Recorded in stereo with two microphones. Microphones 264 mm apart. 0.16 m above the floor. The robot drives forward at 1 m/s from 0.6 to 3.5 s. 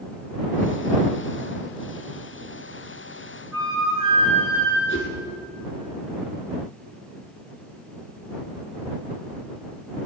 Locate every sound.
3.5 s a flute: 10° right (ahead or behind), 5 m
4.9 s a whoosh: 50° left (ahead or behind), 2.5 m